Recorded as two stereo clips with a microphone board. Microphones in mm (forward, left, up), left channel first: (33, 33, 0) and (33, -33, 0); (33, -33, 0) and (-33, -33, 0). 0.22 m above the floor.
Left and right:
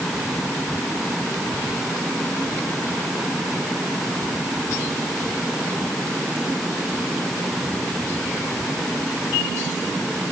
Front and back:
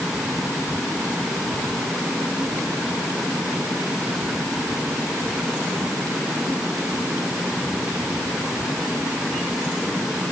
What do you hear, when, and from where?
Only background noise.